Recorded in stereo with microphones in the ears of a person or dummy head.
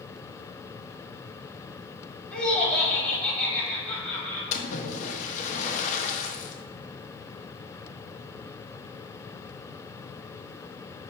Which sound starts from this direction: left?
A splash, at 4.5 s.